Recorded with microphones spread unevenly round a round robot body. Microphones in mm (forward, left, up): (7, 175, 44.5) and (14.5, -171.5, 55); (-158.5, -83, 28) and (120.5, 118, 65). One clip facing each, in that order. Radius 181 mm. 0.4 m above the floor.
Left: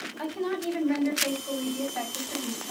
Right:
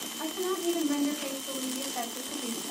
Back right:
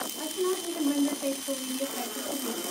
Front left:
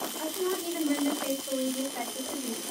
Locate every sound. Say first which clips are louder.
0.2 s a woman speaking: left 1 dB, back right 2 dB; 55° left, 2 m